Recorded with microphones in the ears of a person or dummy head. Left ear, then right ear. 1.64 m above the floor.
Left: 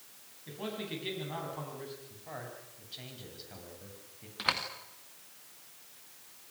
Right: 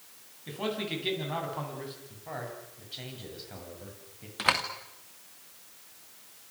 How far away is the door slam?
About 2.5 m.